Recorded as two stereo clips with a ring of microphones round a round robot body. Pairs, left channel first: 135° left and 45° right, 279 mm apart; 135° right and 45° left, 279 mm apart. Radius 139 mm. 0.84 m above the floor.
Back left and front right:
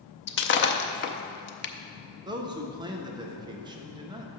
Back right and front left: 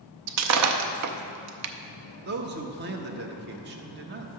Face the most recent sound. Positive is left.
turn(degrees=20)